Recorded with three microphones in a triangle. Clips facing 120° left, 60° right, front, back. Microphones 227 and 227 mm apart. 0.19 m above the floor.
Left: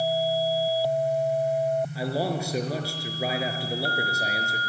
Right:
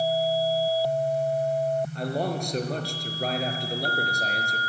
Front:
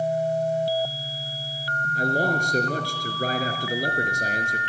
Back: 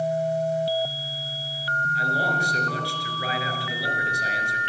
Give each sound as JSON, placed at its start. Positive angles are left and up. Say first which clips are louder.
{"t": 1.9, "sound": "a man speaking", "louder": "left 1 dB, front 5 dB", "azimuth_deg": 35, "distance_m": 3.5}